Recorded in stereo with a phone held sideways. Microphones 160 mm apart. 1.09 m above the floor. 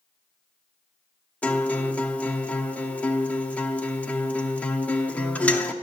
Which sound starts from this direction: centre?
A guitar, at 1.4 s.